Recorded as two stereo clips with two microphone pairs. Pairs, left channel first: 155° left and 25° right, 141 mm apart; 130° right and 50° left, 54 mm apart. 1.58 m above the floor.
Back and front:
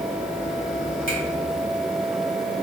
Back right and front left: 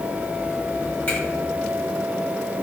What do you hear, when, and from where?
1.1 s a finger snap: 170° left, 1.2 m